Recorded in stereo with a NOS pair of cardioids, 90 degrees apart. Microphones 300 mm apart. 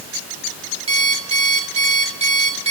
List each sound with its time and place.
0.9 s an alarm clock: 20° right, 3 m